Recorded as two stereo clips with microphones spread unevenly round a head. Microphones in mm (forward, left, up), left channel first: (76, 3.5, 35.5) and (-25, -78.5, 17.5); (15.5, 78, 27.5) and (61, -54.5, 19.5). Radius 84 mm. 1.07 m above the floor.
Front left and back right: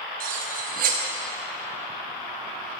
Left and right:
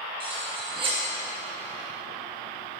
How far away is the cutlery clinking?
About 0.6 m.